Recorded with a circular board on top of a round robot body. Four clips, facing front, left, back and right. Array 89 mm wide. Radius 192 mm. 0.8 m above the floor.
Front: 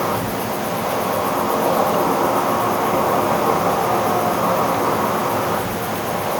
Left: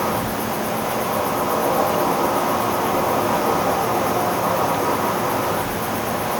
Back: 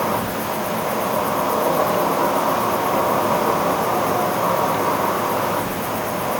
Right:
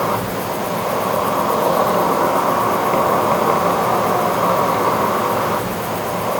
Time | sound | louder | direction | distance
0.0 | an insect | right 2 dB, front 1 dB | 85° right | 1.6 m